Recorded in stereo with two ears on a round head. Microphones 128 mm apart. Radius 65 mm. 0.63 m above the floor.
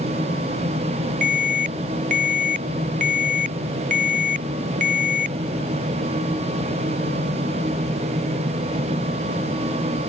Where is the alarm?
60° right (ahead or behind).